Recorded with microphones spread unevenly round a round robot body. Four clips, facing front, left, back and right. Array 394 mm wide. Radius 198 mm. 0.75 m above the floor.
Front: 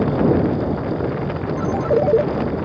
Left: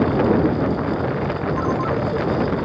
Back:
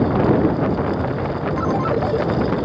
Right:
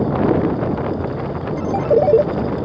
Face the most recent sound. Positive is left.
turn(degrees=-60)